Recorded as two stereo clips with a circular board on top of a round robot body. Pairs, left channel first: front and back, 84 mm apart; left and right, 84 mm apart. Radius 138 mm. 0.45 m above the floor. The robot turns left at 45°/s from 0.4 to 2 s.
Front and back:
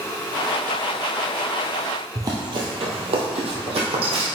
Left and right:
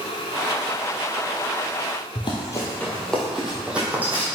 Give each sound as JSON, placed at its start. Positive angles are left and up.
{"t": 2.1, "sound": "running footsteps", "azimuth_deg": 125, "distance_m": 1.0}